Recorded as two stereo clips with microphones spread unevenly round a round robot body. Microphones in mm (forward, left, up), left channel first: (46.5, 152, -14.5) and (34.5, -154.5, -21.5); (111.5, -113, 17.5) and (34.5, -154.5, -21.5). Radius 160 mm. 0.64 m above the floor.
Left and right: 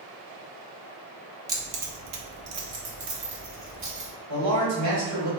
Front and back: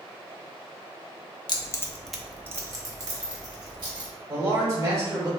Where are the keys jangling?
20° right, 0.6 m; by 4.1 s 145° right, 1.7 m.